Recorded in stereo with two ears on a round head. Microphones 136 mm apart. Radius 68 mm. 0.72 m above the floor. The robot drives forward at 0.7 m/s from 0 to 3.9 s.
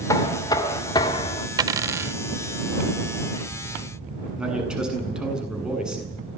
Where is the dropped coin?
25° right (ahead or behind), 0.6 m; by 2.2 s 15° right (ahead or behind), 0.9 m.